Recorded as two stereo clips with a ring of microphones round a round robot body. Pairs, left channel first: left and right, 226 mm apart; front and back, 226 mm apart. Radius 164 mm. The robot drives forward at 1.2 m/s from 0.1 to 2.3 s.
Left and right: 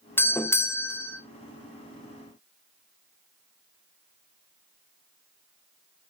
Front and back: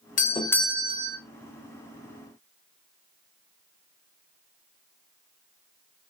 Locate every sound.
0.2 s a doorbell: 15° left, 1.0 m; by 1.2 s 165° left, 1.1 m